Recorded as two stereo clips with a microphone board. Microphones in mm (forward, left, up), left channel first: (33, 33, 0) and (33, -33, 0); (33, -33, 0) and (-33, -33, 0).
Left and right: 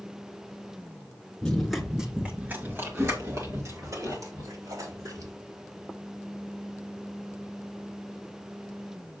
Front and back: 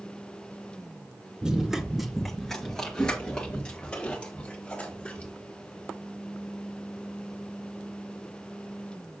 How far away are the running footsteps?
About 1.6 m.